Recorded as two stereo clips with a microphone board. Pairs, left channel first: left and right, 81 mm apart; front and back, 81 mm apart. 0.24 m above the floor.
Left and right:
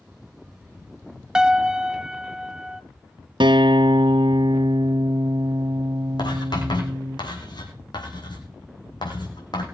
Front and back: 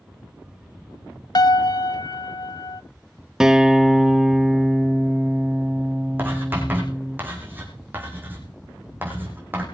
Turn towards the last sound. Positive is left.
turn(degrees=115)